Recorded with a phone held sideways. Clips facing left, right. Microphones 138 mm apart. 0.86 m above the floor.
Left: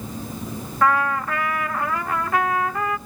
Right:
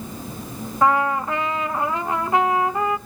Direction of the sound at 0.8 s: 20° right (ahead or behind).